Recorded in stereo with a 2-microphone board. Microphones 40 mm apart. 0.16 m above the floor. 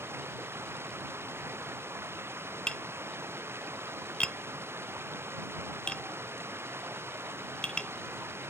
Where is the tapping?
25° left (ahead or behind).